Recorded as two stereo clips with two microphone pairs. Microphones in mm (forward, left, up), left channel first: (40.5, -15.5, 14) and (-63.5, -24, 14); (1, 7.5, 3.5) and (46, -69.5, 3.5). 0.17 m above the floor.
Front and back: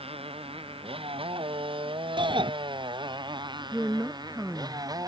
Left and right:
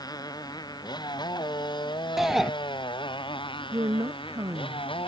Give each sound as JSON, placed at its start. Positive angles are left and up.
{"t": 0.0, "sound": "a motorcycle", "azimuth_deg": 160}
{"t": 2.2, "sound": "a shout", "azimuth_deg": -145}
{"t": 3.7, "sound": "a woman speaking", "azimuth_deg": -110}